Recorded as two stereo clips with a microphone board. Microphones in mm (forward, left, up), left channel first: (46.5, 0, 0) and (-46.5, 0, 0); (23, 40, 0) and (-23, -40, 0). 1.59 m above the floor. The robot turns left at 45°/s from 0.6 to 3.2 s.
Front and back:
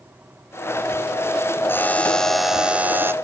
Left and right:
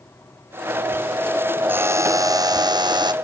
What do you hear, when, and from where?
1.7 s a buzzer: 60° right, 0.8 m; by 3.1 s 125° right, 0.8 m